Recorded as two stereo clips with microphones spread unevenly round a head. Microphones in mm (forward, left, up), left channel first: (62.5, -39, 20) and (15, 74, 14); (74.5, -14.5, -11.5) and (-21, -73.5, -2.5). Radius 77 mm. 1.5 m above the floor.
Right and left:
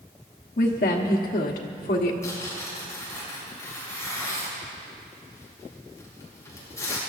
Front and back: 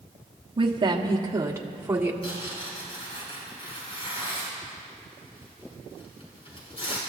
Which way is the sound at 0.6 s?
105° right.